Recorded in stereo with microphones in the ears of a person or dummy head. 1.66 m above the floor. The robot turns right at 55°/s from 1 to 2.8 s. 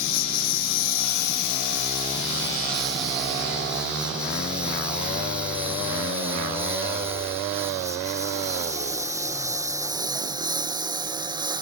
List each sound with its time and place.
0.0 s a lawn mower: 75° left (ahead or behind); by 11.6 s 20° right (ahead or behind)